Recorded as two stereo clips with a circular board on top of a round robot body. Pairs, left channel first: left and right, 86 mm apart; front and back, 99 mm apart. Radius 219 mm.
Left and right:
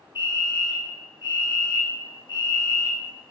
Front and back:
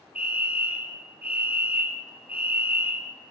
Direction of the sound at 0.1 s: 110° left.